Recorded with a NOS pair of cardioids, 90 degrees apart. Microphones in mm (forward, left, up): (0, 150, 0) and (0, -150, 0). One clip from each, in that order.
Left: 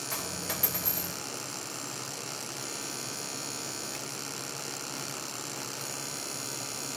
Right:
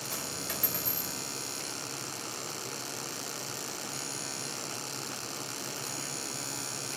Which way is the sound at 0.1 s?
25° left.